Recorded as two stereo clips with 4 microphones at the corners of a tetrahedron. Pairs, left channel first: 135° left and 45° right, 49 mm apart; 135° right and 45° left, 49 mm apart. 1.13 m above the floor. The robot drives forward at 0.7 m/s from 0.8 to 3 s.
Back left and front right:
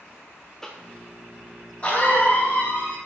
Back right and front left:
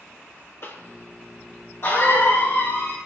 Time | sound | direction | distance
0.6 | a cough | 150° right | 0.8 m